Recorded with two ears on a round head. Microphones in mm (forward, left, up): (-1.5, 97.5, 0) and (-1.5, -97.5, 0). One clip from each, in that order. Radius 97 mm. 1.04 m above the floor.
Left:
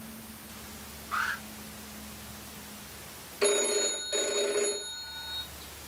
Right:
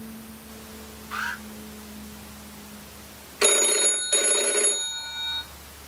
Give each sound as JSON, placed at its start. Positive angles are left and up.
{"t": 1.1, "sound": "an alarm", "side_deg": -35, "distance_m": 5.5}
{"t": 3.4, "sound": "a phone ringing", "side_deg": -85, "distance_m": 1.0}